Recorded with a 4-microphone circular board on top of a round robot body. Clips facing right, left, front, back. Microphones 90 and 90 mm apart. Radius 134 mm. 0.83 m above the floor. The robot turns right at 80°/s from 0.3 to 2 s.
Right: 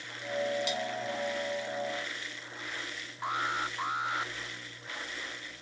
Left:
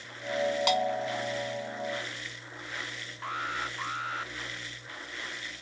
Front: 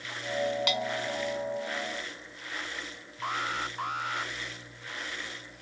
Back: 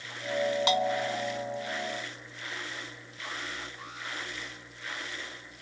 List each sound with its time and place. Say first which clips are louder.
0.7 s a bell: left 6 dB, back 4 dB; 120° left; by 1.2 s 165° left
3.2 s an alarm: right 2 dB, front 7 dB; 20° right